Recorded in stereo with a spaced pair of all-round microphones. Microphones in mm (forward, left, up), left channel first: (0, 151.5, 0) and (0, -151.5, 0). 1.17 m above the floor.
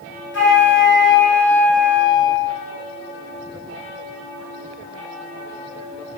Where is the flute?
40° left (ahead or behind), 1.1 m.